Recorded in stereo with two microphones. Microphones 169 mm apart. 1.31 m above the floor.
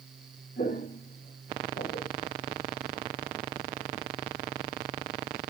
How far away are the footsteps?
About 5 m.